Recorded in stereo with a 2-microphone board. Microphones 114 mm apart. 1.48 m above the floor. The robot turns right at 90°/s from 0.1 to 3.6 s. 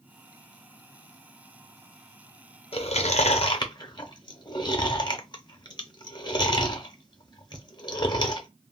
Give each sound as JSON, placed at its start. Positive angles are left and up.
{"t": 2.7, "sound": "chewing", "side_deg": 55, "distance_m": 0.6}